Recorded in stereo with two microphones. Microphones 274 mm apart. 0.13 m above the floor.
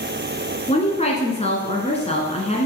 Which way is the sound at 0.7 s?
25° left (ahead or behind).